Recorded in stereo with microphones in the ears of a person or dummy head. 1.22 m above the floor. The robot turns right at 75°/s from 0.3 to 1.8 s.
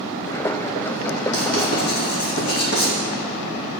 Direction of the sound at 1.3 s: 60° left (ahead or behind).